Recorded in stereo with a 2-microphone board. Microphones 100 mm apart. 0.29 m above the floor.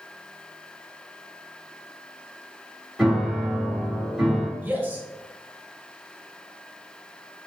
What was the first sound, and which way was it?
A piano, 5° right (ahead or behind).